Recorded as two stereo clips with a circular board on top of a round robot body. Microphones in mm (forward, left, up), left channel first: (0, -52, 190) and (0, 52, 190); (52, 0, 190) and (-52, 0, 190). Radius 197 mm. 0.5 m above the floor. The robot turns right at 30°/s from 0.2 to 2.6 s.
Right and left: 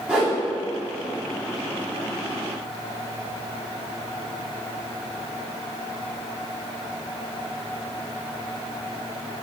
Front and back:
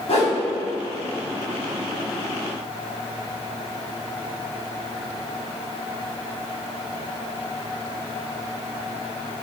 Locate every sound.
0.1 s a whoosh: 10° left, 1.4 m; by 0.4 s 15° left, 1.4 m